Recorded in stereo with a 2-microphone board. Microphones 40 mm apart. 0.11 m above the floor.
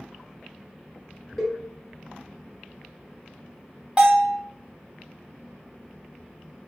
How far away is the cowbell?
About 1.7 m.